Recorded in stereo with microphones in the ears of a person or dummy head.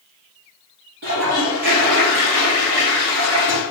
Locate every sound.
1.0 s a toilet flushing: 65° right (ahead or behind), 1.0 m